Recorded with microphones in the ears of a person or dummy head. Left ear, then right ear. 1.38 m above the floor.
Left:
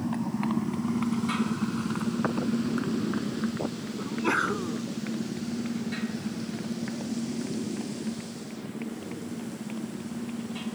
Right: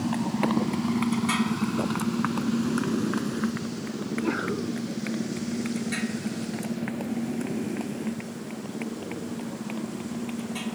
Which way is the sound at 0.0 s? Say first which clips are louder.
Right 4 dB; 20° right (ahead or behind).